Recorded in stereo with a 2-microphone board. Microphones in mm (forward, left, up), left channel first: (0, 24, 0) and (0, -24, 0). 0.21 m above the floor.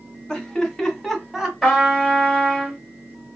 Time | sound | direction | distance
0.3 | laughter | 15° left (ahead or behind) | 1.6 m
1.6 | a trumpet | centre (ahead or behind) | 2.5 m